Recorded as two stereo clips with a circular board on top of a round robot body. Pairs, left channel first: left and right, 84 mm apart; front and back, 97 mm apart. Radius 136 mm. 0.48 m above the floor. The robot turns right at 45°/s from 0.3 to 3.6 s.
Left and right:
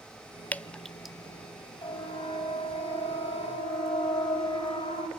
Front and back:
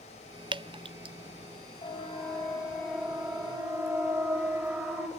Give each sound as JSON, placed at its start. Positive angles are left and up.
{"t": 0.5, "sound": "dripping", "azimuth_deg": 160, "distance_m": 0.7}
{"t": 1.8, "sound": "a siren", "azimuth_deg": 40, "distance_m": 5.5}